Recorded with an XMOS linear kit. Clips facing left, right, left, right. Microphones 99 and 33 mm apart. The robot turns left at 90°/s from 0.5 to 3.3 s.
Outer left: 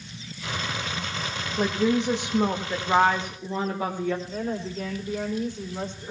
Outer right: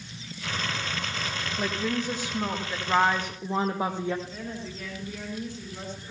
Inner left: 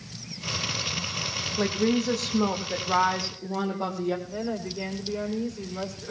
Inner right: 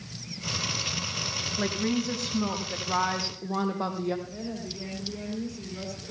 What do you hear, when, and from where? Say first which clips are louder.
1.6 s a woman speaking: outer left 7 dB, inner left 4 dB; 130° left, 4 m; by 4.2 s 25° right, 4 m
4.3 s a woman speaking: outer left 7 dB, inner left 5 dB; 35° left (ahead or behind), 5.5 m